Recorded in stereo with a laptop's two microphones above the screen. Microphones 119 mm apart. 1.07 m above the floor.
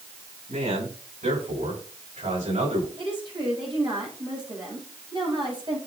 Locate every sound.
0.5 s a man speaking: 85° right, 8 m
3.0 s a woman speaking: 45° right (ahead or behind), 5 m